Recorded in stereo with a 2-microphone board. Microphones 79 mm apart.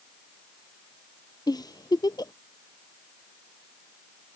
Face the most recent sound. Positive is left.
turn(degrees=60)  # may be behind; listen again after turning